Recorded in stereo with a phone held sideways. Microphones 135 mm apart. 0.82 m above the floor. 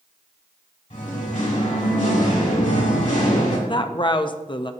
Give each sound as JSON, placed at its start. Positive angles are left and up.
{"t": 0.9, "sound": "singing", "side_deg": 70, "distance_m": 3.0}
{"t": 3.7, "sound": "a woman speaking", "side_deg": 35, "distance_m": 0.5}